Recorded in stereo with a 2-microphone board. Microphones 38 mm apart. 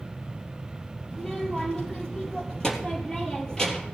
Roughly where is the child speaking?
Centre.